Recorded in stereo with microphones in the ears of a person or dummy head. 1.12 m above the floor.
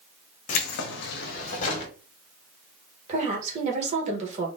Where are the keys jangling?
45° left (ahead or behind), 0.8 m; by 1.9 s 40° left (ahead or behind), 1.7 m.